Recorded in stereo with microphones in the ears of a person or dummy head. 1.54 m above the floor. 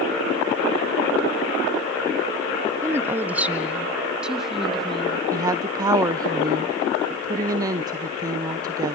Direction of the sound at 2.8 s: 20° right (ahead or behind).